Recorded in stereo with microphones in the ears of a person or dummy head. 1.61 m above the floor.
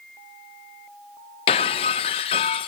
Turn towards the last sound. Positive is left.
turn(degrees=30)  # may be behind; listen again after turning